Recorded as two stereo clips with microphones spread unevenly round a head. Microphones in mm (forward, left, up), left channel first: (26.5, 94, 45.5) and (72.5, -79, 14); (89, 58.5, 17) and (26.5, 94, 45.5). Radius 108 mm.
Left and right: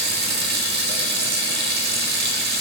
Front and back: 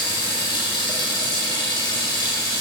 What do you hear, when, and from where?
0.0 s running water: 80° right, 0.7 m